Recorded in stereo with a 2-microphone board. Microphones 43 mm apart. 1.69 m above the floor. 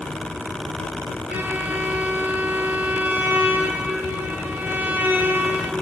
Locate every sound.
1.3 s a violin: 45° right (ahead or behind), 1.6 m